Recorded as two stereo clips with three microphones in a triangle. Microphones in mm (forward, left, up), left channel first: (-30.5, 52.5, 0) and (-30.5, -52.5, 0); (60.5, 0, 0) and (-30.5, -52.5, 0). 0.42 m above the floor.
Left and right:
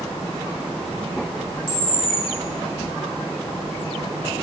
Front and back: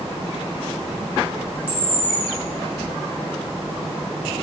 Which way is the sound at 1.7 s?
135° left.